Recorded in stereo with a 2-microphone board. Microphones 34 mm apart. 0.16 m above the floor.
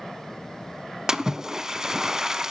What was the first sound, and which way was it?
A splash, 20° right (ahead or behind).